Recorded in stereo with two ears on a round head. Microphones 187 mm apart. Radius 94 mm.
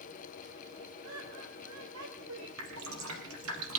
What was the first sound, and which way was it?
Laughter, 75° right (ahead or behind).